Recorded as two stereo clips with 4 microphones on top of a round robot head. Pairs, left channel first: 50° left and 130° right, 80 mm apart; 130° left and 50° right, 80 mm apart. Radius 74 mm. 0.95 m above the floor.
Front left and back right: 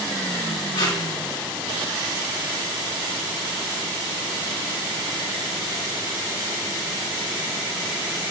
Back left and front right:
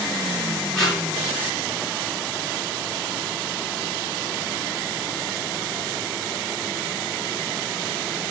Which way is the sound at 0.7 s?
45° left.